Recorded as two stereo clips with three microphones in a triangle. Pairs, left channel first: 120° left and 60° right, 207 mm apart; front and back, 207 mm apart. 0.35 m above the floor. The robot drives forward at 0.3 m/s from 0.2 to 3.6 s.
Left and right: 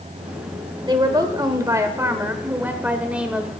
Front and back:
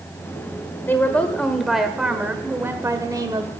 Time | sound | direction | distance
0.9 | a woman speaking | 60° right | 1.4 m